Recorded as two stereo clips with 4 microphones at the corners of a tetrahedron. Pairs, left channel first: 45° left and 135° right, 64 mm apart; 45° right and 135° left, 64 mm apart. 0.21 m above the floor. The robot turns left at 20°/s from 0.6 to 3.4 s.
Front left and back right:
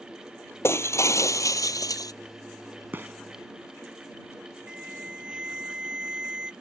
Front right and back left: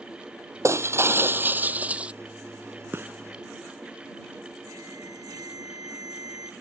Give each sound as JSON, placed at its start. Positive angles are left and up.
{"t": 0.6, "sound": "breaking glass", "azimuth_deg": 90}
{"t": 2.9, "sound": "a gunshot", "azimuth_deg": 175}
{"t": 4.7, "sound": "an alarm", "azimuth_deg": 150}